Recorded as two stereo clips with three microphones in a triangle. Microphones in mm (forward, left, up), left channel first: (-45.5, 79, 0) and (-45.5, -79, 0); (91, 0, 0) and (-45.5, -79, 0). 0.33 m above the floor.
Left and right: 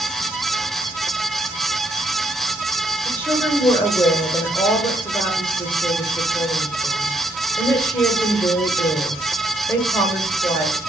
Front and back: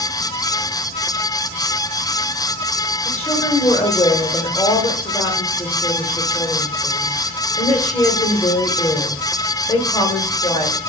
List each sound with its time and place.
3.0 s a woman speaking: 35° left, 1.0 m